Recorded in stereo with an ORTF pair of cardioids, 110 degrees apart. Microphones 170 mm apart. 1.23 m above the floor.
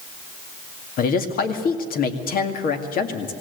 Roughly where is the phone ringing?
I don't hear a phone ringing.